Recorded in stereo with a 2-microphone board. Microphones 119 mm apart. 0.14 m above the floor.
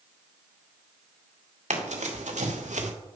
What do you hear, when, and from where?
1.7 s running footsteps: 85° right, 2.5 m; by 2.9 s 80° right, 1.8 m